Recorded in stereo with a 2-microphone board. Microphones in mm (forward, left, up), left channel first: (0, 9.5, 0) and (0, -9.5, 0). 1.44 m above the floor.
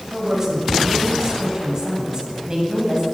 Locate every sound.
0.1 s a woman speaking: 30° right (ahead or behind), 9.5 m; by 3.0 s 40° right (ahead or behind), 9.5 m